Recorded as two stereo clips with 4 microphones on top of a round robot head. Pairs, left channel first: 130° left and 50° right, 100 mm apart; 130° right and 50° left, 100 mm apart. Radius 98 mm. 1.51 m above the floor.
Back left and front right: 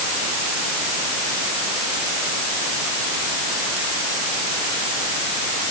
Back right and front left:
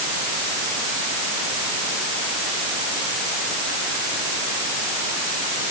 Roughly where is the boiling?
I don't hear boiling.